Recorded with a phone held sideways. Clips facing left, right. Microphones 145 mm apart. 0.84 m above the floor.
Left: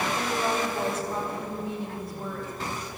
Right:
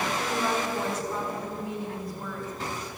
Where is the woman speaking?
30° left (ahead or behind), 3.5 m.